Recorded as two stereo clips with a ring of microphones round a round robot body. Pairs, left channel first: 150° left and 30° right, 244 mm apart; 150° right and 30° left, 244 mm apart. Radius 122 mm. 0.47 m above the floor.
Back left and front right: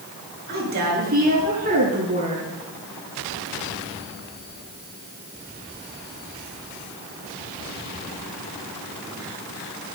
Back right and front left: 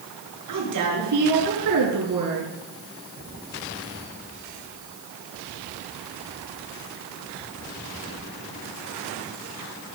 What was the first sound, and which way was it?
A woman speaking, 20° left.